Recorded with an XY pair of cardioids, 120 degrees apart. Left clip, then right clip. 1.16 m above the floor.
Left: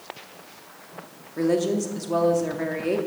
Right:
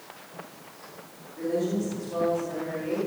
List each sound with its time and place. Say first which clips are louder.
1.4 s a woman speaking: left 5 dB; 65° left, 2 m